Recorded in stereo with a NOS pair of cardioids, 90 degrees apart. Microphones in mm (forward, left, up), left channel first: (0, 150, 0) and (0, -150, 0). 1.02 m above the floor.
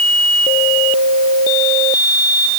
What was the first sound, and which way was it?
Only background noise.